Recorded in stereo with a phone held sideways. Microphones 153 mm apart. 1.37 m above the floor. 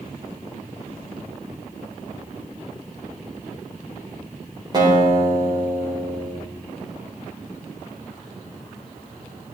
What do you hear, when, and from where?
4.7 s a guitar: 30° right (ahead or behind), 4 m